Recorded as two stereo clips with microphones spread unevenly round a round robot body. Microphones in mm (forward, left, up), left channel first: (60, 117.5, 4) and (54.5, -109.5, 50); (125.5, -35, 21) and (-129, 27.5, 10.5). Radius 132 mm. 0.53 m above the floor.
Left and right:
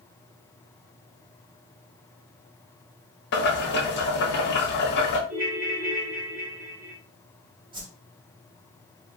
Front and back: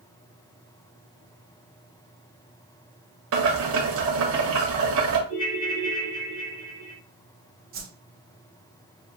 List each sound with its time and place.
3.3 s boiling: 130° left, 1.3 m
5.3 s a ringtone: 60° right, 2.5 m
7.7 s a whoosh: 165° right, 1.2 m